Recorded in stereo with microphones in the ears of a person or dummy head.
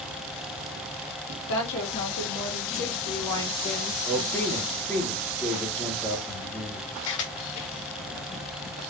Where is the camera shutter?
65° left (ahead or behind), 1.4 m.